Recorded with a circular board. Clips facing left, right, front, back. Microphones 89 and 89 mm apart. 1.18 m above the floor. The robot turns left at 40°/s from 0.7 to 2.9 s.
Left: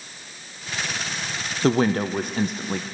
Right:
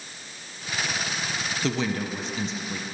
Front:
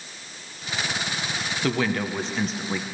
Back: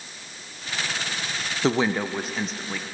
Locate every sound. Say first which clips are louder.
1.6 s a woman speaking: left 8 dB, back 3 dB; 125° left, 0.7 m; by 2.8 s 75° left, 0.7 m